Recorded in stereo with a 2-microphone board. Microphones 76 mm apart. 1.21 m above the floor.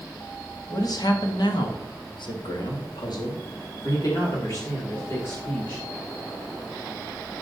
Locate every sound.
0.7 s a man speaking: 50° left (ahead or behind), 2.0 m; by 5.8 s 35° left (ahead or behind), 4 m